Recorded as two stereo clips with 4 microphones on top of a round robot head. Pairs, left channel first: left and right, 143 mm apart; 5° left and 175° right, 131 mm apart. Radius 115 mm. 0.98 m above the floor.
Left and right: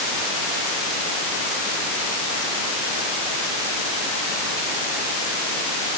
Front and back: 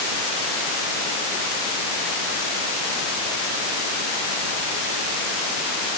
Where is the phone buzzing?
No phone buzzing in this recording.